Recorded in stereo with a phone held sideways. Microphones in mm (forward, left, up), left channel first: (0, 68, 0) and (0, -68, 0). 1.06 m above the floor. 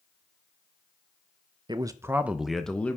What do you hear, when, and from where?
1.7 s a man speaking: 35° right (ahead or behind), 0.6 m; by 3.0 s 10° left (ahead or behind), 0.9 m